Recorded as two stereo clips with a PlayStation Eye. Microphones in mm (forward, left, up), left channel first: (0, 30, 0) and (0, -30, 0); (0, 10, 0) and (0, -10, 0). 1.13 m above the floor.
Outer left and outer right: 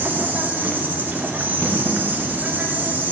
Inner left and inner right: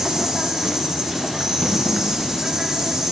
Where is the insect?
30° right (ahead or behind), 0.8 m.